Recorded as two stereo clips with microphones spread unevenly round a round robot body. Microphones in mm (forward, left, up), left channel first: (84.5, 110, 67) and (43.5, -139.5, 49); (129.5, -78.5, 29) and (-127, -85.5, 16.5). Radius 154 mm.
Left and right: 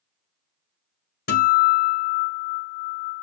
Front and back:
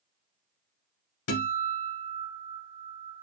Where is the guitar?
30° left, 1.7 m.